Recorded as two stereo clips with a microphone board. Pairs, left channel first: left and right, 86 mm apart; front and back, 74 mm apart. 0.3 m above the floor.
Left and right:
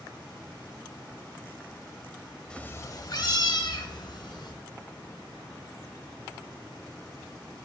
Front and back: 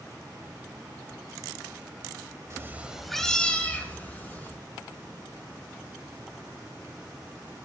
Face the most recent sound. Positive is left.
turn(degrees=60)